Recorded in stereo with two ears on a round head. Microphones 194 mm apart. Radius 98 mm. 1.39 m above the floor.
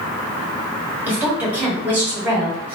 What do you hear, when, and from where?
1.1 s a woman speaking: 10° right (ahead or behind), 1.6 m